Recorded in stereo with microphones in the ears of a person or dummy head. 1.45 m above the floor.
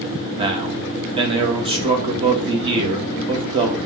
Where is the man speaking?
20° right (ahead or behind), 1.1 m.